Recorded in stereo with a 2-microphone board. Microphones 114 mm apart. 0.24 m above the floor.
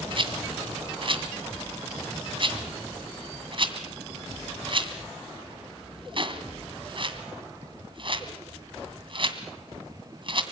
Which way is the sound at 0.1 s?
50° right (ahead or behind).